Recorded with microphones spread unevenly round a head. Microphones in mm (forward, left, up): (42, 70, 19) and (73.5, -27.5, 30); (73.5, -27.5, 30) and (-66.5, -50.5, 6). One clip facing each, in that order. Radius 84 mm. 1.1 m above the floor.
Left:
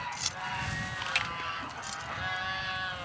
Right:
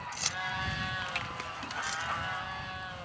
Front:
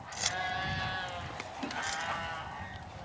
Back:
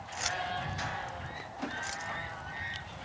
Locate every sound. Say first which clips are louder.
0.1 s keys jangling: even, back 1 dB; 40° right; by 2.1 s 45° right